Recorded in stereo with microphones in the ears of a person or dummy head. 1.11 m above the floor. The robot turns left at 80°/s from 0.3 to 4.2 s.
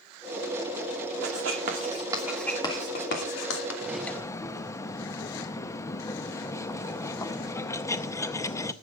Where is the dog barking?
I don't hear a dog barking.